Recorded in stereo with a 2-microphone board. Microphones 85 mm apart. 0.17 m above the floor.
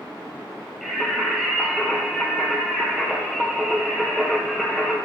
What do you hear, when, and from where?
0.8 s singing: centre (ahead or behind), 2.5 m